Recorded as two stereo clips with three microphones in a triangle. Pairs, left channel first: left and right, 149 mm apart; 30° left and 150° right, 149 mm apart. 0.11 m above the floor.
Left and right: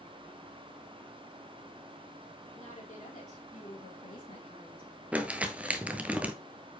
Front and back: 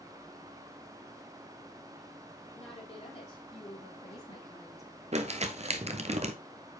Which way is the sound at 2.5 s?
60° left.